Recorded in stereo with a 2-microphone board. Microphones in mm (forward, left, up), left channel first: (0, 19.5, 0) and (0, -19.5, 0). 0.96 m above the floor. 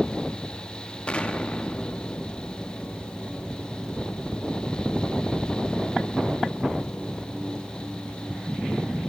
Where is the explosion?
30° left (ahead or behind), 1.0 m.